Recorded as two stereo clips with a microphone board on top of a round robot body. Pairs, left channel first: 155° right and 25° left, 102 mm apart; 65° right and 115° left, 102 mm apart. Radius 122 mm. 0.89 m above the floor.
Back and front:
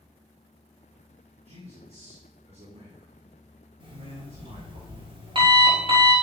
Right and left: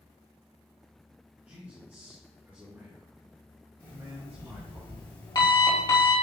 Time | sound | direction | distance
1.4 | a man speaking | 35° left | 3.5 m
3.8 | an alarm clock | 15° right | 4 m